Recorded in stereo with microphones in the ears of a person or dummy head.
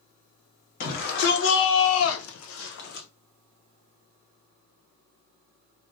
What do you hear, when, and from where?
0.8 s a shout: 55° left (ahead or behind), 1.2 m; by 3.1 s 45° left (ahead or behind), 0.9 m